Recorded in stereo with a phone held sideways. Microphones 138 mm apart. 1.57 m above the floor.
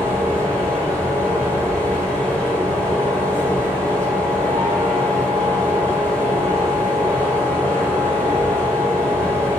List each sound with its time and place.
0.0 s a fan: 10° left (ahead or behind), 0.9 m